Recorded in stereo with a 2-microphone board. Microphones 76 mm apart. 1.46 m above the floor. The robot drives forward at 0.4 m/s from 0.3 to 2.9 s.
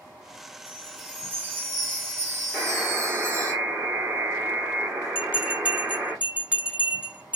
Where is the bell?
15° right (ahead or behind), 1.5 m.